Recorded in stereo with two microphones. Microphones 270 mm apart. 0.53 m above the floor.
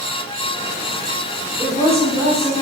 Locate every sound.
1.6 s a woman speaking: centre (ahead or behind), 4.5 m